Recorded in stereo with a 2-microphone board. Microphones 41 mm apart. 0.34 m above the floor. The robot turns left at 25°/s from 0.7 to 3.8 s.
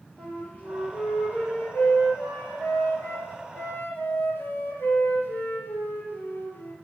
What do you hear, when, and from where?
0.2 s a flute: 145° left, 3.5 m; by 6.7 s 70° left, 3.5 m